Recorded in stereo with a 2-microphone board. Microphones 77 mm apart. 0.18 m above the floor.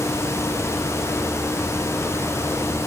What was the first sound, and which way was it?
Only background noise.